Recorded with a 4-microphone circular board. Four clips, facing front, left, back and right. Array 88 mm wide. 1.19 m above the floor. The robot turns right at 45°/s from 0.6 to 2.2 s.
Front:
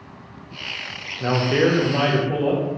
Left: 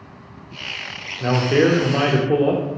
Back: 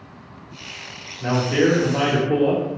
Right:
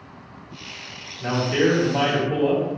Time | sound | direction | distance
1.2 | a man speaking | 45° left | 0.9 m